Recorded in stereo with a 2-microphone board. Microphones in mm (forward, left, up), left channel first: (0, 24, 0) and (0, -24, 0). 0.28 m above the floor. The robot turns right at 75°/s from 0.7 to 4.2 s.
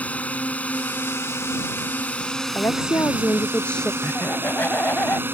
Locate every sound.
0.0 s a drone: 40° left; by 5.3 s 60° right
2.5 s a woman speaking: 70° left; by 3.9 s 175° left
4.0 s laughter: 50° left (ahead or behind)